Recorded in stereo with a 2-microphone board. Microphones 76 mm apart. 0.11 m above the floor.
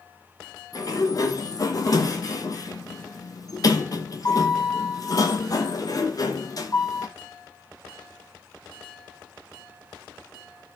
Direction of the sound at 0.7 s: 50° left (ahead or behind).